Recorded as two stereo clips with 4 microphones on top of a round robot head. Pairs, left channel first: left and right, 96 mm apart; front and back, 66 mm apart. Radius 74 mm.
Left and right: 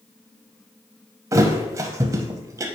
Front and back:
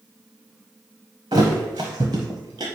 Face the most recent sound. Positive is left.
turn(degrees=-140)